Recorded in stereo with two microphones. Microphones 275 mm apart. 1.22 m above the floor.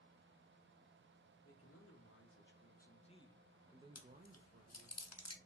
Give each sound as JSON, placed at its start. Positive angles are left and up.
{"t": 1.4, "sound": "a man speaking", "side_deg": 60, "distance_m": 1.3}
{"t": 4.0, "sound": "chewing", "side_deg": 65, "distance_m": 0.6}